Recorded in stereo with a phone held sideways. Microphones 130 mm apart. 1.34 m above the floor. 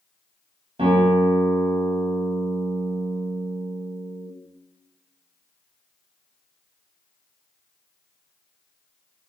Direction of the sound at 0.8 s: 45° right (ahead or behind).